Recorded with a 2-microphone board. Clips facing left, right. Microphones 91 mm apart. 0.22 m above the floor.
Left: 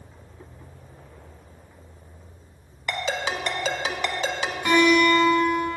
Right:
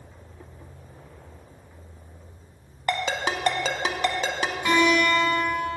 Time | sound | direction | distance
2.9 | a ringtone | 45° right (ahead or behind) | 0.6 m
4.7 | a guitar | 5° right (ahead or behind) | 2.0 m